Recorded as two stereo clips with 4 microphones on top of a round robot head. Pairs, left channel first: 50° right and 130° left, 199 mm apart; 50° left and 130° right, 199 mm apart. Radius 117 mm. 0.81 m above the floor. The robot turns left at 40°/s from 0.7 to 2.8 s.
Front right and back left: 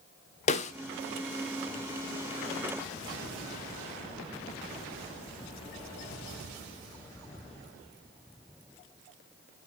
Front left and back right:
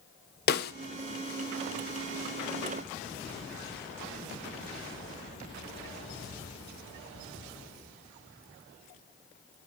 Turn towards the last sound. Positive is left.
turn(degrees=-75)